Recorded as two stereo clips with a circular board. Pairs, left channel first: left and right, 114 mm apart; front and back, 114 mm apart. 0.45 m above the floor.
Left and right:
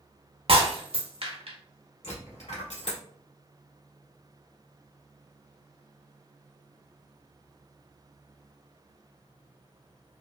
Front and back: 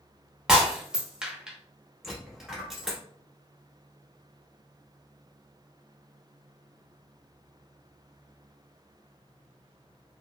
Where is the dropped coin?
95° left, 1.3 m.